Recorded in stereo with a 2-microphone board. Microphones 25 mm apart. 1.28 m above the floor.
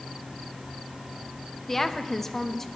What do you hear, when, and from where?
1.7 s a woman speaking: 15° left (ahead or behind), 1.1 m